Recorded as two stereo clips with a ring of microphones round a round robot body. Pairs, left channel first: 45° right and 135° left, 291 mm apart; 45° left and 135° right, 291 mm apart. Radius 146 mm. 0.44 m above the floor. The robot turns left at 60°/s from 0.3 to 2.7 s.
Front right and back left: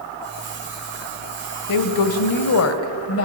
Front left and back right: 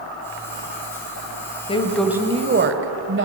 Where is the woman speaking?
25° right, 2.0 m; by 3.2 s 85° right, 2.0 m.